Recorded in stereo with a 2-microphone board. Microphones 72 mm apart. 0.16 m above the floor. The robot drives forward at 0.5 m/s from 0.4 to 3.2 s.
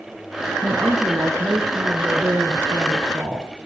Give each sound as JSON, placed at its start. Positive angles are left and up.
{"t": 0.6, "sound": "a woman speaking", "side_deg": -45, "distance_m": 3.5}